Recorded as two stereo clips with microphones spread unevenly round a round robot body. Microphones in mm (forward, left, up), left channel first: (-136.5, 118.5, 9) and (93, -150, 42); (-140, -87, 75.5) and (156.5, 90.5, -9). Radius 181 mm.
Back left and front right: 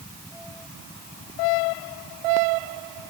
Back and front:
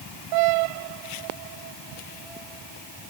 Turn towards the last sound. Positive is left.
No sound to turn to.